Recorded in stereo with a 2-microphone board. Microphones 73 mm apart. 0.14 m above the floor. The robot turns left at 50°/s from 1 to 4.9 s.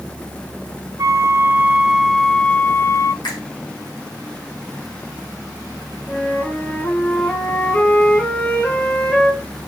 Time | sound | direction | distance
1.0 | a flute | 125° right | 0.5 m
3.2 | a finger snap | 70° left (ahead or behind) | 6.5 m
6.1 | a flute | 15° left (ahead or behind) | 2.5 m